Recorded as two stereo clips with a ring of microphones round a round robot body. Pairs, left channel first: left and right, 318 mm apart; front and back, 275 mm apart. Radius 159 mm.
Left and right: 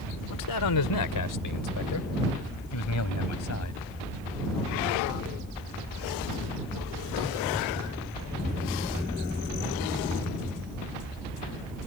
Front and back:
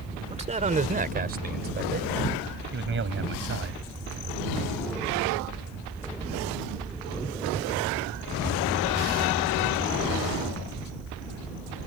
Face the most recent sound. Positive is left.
turn(degrees=135)